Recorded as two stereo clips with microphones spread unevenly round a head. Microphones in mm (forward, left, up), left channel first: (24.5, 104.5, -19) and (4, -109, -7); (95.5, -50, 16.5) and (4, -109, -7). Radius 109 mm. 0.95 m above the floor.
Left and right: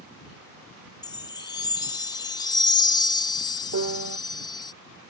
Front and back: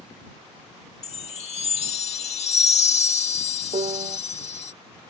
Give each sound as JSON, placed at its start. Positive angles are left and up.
{"t": 1.0, "sound": "a chime", "azimuth_deg": 15}
{"t": 3.7, "sound": "a piano", "azimuth_deg": -115}